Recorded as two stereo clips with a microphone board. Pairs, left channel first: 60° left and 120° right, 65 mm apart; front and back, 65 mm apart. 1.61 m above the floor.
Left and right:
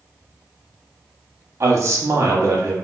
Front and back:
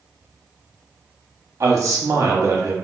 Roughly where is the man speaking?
Behind right.